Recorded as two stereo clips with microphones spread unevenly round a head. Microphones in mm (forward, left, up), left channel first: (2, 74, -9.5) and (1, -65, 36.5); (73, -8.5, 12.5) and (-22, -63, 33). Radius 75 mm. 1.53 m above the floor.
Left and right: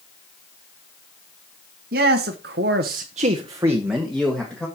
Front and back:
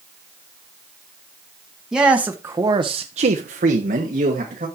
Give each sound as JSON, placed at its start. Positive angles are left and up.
{"t": 1.9, "sound": "a man speaking", "azimuth_deg": -70, "distance_m": 1.9}